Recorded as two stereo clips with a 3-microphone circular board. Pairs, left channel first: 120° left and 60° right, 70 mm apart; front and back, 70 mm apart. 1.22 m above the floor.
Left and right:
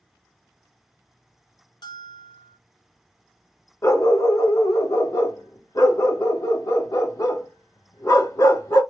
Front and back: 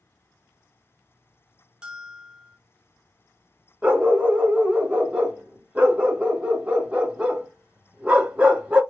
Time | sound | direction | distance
1.8 | a bell | 105° left | 1.0 m
3.8 | a dog barking | 110° left | 1.2 m